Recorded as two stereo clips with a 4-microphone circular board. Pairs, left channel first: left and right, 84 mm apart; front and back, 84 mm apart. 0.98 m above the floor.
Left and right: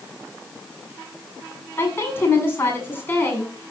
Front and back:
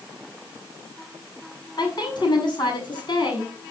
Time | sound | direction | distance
1.8 | a woman speaking | 30° left | 7.5 m